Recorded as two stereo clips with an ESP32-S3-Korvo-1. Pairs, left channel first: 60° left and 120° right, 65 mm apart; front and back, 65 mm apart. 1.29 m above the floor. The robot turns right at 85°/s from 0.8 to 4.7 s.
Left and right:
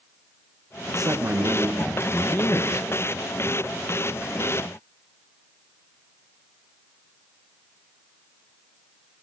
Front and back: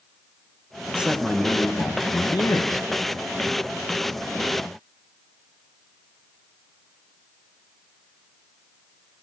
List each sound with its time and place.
0.9 s a man speaking: 115° right, 0.7 m; by 2.9 s 50° left, 0.7 m